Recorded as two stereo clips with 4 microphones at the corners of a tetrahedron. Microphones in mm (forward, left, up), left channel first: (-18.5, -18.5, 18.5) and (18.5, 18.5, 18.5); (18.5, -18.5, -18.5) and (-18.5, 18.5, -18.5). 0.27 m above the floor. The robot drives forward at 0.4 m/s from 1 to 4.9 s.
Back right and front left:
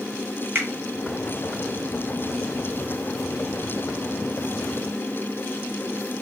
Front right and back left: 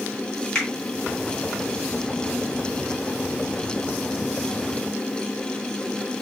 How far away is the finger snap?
About 1.8 m.